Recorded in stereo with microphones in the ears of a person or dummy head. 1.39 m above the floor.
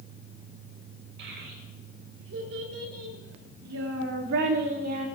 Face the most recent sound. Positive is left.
turn(degrees=-45)  # may be behind; listen again after turning